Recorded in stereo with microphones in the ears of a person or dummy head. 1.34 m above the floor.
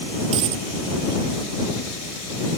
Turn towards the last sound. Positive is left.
turn(degrees=-30)  # may be behind; listen again after turning